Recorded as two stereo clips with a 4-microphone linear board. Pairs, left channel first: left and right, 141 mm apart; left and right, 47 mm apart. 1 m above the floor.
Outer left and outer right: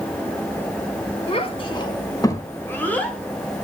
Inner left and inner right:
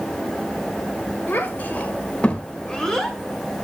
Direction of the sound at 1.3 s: 45° left (ahead or behind).